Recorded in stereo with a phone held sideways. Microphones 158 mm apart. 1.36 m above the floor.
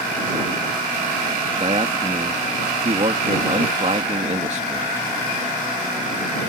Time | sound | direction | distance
1.6 | a man speaking | 45° right (ahead or behind) | ?